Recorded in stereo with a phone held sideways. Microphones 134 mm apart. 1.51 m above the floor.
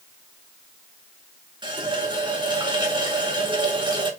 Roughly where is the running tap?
Right.